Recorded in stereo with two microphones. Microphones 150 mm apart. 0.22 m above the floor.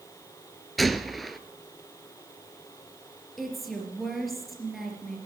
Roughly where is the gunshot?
Centre.